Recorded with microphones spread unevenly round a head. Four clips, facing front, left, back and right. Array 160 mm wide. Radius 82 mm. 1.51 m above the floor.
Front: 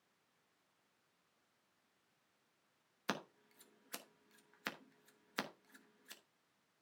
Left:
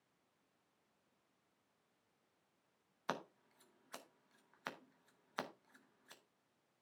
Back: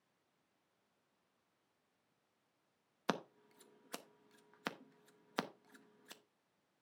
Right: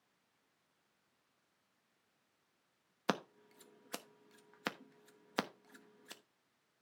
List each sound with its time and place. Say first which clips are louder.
3.1 s scissors: right 6 dB, back 4 dB; 115° right, 1.1 m